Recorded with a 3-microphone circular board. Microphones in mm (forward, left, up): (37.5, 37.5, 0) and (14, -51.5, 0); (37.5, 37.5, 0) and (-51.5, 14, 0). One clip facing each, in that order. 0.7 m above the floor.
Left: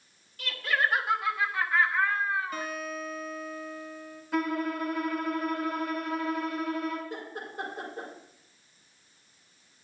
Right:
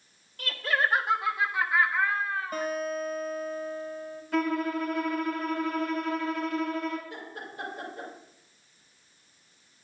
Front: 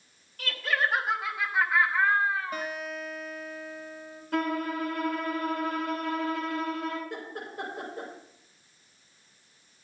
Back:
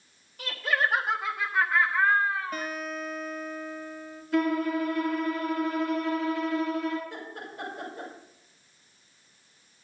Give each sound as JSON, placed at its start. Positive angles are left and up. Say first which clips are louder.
{"t": 0.4, "sound": "laughter", "louder": "right 1 dB, back 1 dB", "azimuth_deg": -85, "distance_m": 1.4}
{"t": 2.5, "sound": "a guitar", "louder": "right 5 dB, back 1 dB", "azimuth_deg": -60, "distance_m": 2.0}
{"t": 4.3, "sound": "a violin", "louder": "right 2 dB, back 4 dB", "azimuth_deg": -10, "distance_m": 2.5}
{"t": 7.1, "sound": "laughter", "louder": "left 2 dB, front 2 dB", "azimuth_deg": 20, "distance_m": 3.5}